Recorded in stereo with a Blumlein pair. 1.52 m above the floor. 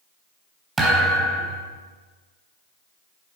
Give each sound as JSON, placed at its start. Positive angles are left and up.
{"t": 0.8, "sound": "a thud", "azimuth_deg": -15, "distance_m": 3.5}